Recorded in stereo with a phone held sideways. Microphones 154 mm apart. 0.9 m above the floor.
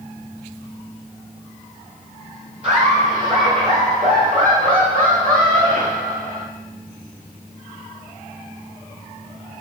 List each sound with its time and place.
2.6 s laughter: 60° right (ahead or behind), 3 m